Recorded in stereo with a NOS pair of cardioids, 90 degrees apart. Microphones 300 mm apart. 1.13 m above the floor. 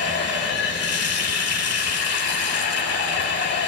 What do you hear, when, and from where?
0.0 s running water: 55° left, 7.5 m